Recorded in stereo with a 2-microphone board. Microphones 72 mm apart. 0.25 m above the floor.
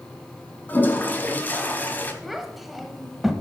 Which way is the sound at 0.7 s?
25° left (ahead or behind).